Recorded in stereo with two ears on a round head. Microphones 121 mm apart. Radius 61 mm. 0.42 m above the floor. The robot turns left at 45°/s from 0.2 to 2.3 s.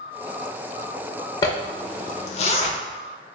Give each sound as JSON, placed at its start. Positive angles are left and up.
{"t": 1.4, "sound": "a zipper", "side_deg": 30, "distance_m": 0.7}